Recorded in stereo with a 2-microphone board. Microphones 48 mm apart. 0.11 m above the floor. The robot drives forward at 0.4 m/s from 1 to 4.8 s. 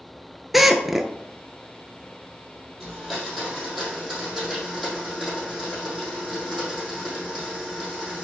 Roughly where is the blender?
Centre.